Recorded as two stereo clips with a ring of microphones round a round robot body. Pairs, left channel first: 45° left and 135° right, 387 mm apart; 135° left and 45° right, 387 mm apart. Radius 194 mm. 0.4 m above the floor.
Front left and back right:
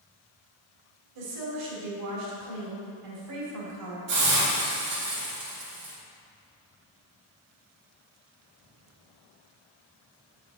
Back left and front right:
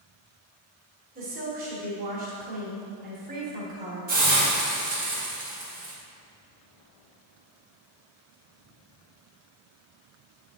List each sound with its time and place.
1.1 s a woman speaking: 110° right, 1.9 m
4.1 s a hiss: 100° right, 1.6 m